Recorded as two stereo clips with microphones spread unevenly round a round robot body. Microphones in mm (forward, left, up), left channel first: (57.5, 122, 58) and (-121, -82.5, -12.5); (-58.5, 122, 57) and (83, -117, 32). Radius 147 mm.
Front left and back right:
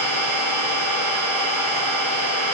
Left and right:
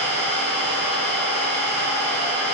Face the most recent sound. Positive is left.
turn(degrees=-150)